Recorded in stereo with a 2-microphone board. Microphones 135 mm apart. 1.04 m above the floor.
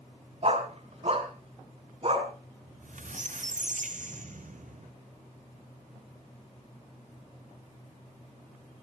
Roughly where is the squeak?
Right.